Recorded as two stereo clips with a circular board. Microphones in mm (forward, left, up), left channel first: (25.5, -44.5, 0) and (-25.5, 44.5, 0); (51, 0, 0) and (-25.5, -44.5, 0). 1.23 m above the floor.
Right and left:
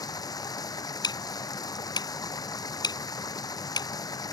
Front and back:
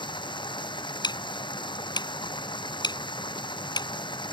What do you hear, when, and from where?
0.0 s running water: 5° right
1.0 s ticking: 10° right